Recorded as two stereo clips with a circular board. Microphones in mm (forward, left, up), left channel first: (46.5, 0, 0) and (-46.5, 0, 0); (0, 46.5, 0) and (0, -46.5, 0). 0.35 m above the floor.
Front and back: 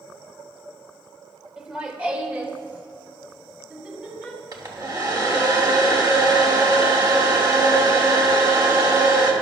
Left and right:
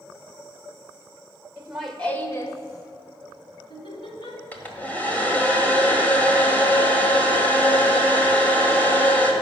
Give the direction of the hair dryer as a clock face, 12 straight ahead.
7 o'clock.